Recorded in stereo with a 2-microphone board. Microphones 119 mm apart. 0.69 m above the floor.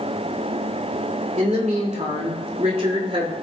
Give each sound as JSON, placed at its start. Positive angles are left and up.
{"t": 1.4, "sound": "a woman speaking", "side_deg": -70, "distance_m": 2.5}